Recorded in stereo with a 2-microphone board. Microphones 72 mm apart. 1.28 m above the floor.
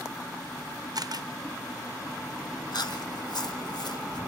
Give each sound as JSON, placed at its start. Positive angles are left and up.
{"t": 0.9, "sound": "a camera shutter", "side_deg": -60, "distance_m": 1.0}
{"t": 2.7, "sound": "chewing", "side_deg": 65, "distance_m": 1.4}